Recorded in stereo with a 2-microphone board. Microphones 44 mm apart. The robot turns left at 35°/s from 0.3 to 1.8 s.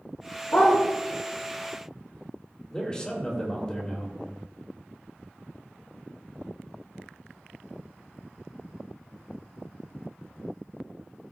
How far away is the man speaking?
About 3.5 m.